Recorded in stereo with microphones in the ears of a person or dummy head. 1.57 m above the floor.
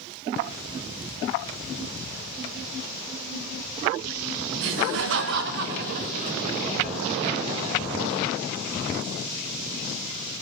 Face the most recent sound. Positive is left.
turn(degrees=-35)  # may be behind; listen again after turning